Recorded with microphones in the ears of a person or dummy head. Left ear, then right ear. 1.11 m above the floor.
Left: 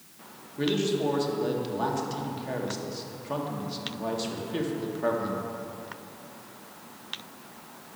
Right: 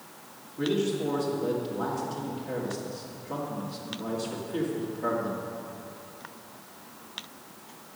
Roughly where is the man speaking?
Left.